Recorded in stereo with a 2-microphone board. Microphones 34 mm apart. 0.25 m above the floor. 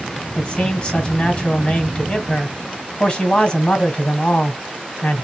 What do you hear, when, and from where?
0.3 s a man speaking: 30° left (ahead or behind), 1.6 m